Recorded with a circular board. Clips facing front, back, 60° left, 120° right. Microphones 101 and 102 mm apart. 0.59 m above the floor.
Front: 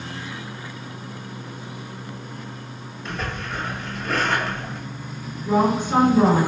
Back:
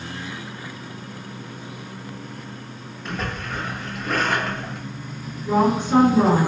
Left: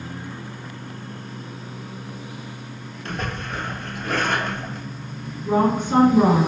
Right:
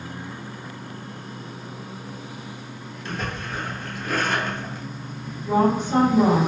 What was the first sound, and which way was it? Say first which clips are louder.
A splash: back 1 dB, left 1 dB; 95° left.